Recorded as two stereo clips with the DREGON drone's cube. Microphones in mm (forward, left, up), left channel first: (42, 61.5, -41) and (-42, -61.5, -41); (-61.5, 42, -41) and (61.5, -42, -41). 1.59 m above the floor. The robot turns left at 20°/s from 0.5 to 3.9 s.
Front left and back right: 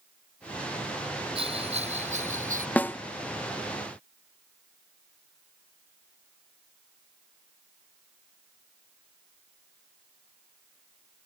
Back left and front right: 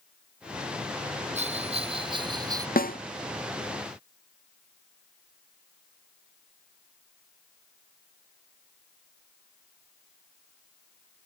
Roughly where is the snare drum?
Behind left.